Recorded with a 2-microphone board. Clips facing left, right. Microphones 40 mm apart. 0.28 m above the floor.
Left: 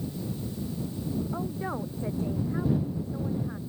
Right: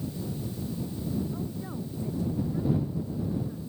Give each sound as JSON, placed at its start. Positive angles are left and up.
{"t": 1.3, "sound": "a woman speaking", "side_deg": 45}